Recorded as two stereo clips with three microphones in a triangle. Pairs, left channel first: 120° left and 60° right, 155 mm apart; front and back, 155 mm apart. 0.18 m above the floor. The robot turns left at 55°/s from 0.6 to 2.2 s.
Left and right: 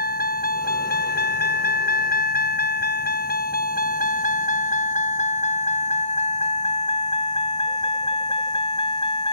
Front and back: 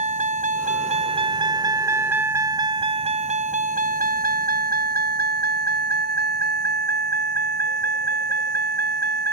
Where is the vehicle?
135° left; by 9.3 s straight behind.